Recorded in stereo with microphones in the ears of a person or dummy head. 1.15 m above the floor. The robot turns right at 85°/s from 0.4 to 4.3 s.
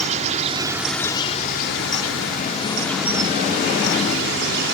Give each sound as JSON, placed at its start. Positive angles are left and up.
{"t": 0.0, "sound": "an insect", "azimuth_deg": -40}